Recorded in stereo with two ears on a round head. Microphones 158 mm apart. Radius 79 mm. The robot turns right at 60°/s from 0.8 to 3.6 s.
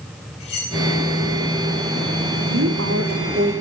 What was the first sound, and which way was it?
Cutlery clinking, 35° left (ahead or behind).